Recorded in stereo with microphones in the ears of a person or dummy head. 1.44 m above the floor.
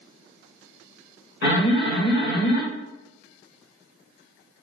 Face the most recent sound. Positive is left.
turn(degrees=50)  # may be behind; listen again after turning